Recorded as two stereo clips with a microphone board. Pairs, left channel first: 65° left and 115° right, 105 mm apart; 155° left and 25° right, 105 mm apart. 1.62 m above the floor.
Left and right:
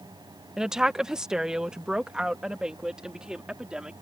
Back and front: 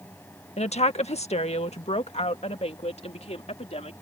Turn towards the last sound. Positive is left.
turn(degrees=165)